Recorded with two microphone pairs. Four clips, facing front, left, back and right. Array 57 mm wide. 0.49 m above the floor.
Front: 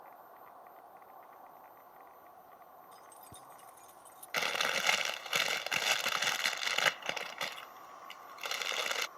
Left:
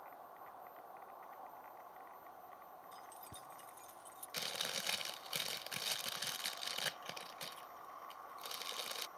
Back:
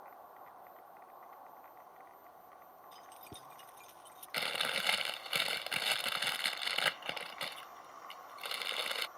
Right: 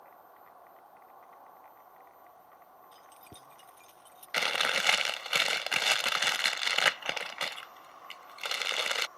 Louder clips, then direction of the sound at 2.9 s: Even, back 1 dB; 140° right.